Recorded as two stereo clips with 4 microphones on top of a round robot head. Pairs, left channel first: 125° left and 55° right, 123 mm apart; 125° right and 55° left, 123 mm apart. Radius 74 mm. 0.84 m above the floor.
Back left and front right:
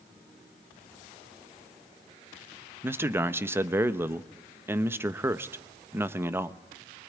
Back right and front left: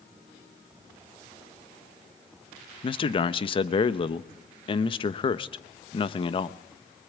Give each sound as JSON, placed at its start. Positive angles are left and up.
{"t": 2.8, "sound": "a man speaking", "azimuth_deg": -120, "distance_m": 0.9}